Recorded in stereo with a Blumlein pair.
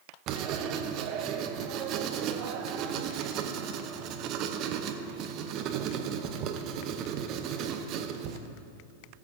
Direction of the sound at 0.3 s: 35° right.